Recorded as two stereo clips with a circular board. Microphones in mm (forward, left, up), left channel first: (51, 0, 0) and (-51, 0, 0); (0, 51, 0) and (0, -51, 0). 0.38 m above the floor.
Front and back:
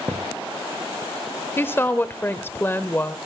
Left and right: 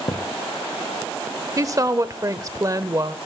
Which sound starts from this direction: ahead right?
A woman speaking, at 1.6 s.